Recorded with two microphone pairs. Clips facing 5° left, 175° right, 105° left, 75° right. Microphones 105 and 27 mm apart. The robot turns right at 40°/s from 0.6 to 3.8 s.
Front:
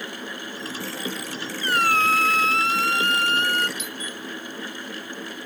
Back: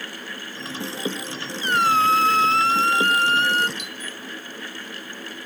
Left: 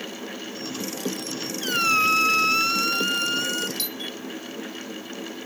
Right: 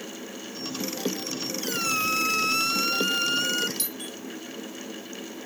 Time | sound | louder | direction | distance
1.6 | a squeak | back 3 dB, left 7 dB | 130° left | ?
3.8 | a doorbell | front 2 dB, left 4 dB | 170° left | ?